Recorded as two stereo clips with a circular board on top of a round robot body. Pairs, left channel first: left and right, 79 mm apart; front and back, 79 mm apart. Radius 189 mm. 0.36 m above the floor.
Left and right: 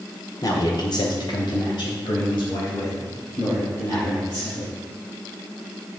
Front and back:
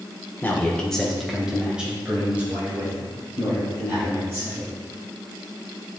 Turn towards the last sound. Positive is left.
turn(degrees=120)